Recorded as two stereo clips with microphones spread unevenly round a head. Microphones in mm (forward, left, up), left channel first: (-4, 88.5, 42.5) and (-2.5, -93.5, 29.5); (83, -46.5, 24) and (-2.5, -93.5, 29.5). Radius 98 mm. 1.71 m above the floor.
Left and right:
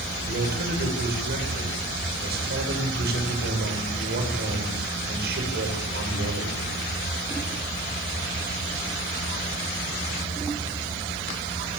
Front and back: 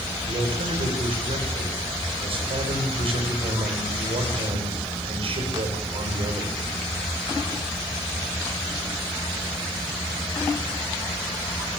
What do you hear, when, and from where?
0.3 s a man speaking: 125° right, 8 m